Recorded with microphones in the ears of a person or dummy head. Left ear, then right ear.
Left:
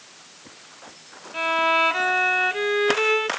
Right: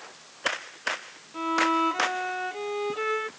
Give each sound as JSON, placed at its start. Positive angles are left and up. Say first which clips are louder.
{"t": 1.3, "sound": "a violin", "louder": "left 4 dB", "side_deg": 65}